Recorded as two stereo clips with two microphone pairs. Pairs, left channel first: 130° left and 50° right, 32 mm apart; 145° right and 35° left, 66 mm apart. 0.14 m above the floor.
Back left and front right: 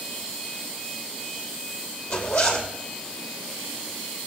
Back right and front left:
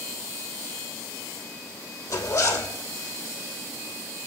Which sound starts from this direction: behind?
A zipper, at 2.1 s.